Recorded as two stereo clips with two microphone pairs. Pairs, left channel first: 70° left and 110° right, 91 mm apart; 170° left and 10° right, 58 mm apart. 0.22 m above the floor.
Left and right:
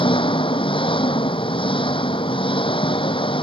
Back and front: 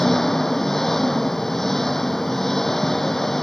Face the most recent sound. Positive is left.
turn(degrees=85)